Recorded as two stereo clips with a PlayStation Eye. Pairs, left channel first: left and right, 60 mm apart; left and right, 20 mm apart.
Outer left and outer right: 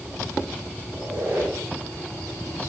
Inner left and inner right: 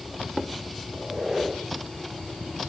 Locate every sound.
0.9 s a squeak: 35° right (ahead or behind), 10 m